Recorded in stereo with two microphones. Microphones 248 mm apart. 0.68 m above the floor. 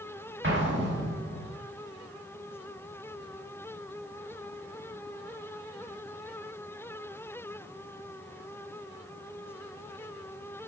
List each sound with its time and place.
0.4 s an explosion: 50° right (ahead or behind), 1.4 m